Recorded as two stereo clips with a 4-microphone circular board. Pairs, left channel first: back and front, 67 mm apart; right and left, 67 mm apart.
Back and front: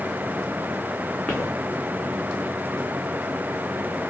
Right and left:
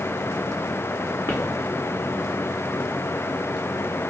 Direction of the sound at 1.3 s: 100° right.